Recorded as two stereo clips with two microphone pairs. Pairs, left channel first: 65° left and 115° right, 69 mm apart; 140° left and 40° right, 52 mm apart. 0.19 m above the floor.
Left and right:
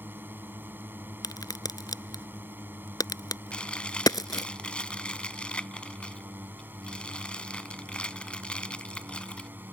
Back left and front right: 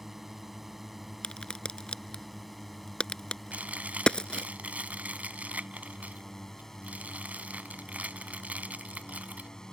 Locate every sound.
0.0 s a drone: 120° right; by 9.7 s 150° right
1.2 s a crack: 65° left
3.5 s chewing: straight ahead